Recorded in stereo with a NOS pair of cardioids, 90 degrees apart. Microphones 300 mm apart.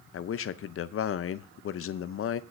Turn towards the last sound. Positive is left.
turn(degrees=45)